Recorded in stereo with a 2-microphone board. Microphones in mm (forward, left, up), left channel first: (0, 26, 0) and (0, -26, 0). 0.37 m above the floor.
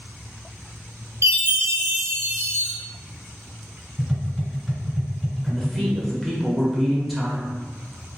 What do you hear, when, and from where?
1.2 s a chime: 55° right (ahead or behind), 1.1 m
4.0 s tapping: 5° right (ahead or behind), 1.9 m
5.4 s a man speaking: centre (ahead or behind), 1.0 m